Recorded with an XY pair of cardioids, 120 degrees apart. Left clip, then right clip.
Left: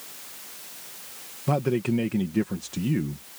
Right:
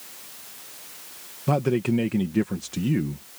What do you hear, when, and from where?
1.5 s a man speaking: 15° right